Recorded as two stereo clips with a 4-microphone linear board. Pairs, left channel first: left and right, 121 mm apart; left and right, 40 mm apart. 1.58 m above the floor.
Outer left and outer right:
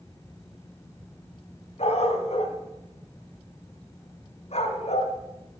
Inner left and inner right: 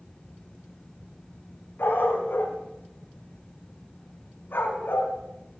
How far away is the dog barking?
About 3.5 m.